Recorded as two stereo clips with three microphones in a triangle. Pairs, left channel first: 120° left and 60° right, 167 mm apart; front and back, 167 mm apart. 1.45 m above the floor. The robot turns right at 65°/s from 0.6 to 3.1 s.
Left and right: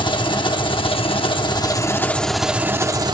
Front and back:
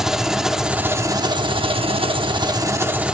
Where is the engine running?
95° left, 1.1 m; by 3.1 s 100° right, 1.1 m.